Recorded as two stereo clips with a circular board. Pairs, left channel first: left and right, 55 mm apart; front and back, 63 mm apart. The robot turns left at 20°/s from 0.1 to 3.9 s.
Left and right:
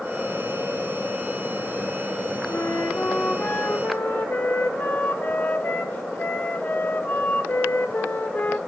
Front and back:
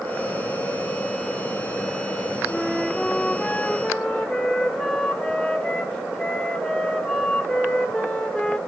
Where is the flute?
90° left, 1.1 m; by 8.6 s 60° left, 1.1 m.